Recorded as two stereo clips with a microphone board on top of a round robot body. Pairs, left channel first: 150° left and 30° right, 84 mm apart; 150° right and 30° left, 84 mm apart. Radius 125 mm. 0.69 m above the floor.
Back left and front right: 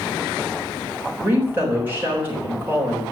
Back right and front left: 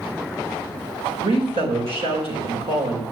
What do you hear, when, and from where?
1.2 s a woman speaking: 35° left, 4 m